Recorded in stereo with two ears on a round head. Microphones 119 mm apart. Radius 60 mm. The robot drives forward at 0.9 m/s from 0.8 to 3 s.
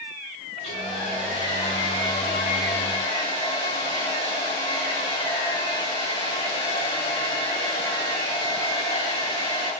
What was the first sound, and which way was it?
A hair dryer, 45° left (ahead or behind).